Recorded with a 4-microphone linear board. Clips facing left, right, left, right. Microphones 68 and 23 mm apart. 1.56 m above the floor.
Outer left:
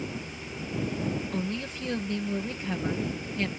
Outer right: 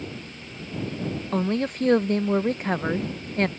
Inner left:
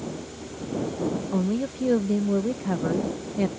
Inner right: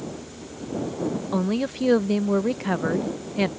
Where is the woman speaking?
50° right (ahead or behind).